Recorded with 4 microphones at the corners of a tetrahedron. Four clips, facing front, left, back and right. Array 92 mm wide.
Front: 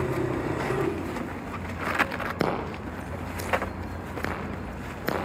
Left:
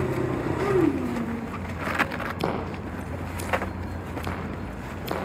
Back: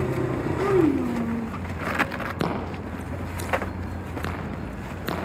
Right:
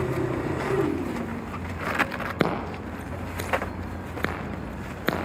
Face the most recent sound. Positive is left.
turn(degrees=-75)